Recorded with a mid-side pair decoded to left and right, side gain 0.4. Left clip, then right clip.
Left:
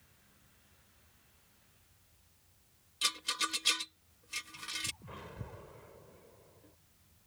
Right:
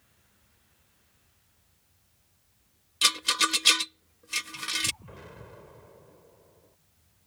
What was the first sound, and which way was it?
A rattle, 70° right.